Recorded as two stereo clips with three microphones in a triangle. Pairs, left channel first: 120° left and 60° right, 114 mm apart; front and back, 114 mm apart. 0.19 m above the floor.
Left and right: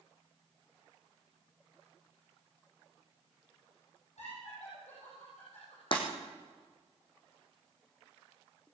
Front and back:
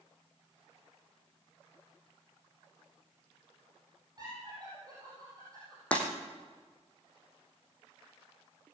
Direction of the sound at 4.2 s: 125° left.